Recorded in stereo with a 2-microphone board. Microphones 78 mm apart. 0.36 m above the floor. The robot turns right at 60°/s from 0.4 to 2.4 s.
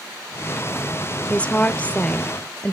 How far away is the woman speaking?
About 0.8 m.